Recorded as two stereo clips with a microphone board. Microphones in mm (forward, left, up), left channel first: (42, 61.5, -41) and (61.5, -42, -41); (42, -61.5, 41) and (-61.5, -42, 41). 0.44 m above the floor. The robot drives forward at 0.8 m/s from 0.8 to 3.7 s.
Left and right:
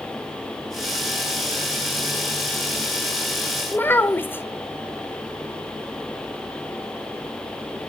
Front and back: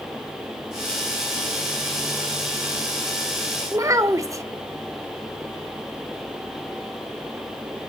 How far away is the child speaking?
About 1.0 m.